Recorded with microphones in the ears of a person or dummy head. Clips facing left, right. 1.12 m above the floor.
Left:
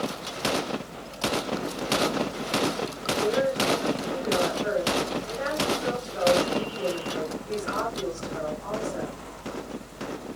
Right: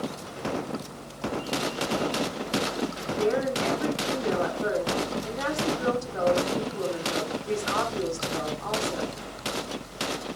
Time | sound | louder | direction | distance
3.2 | a woman speaking | left 1 dB | 85° right | 8 m